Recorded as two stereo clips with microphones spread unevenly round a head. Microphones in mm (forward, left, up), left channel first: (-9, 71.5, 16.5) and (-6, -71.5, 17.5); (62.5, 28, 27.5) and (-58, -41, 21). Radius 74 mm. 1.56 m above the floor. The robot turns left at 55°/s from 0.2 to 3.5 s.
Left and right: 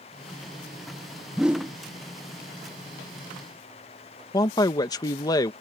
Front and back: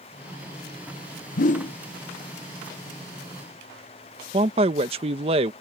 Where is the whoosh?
Straight ahead; by 1.7 s 20° right.